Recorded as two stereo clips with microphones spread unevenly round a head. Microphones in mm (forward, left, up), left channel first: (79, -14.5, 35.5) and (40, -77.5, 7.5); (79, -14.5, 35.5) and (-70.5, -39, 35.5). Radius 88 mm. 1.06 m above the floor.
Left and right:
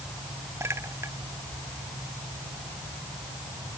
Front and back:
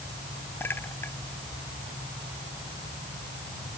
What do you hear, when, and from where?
0.6 s a clink: 65° right